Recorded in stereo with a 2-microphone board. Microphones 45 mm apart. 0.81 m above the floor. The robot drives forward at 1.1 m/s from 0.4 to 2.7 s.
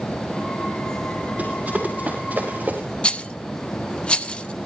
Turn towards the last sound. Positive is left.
turn(degrees=25)  # may be behind; listen again after turning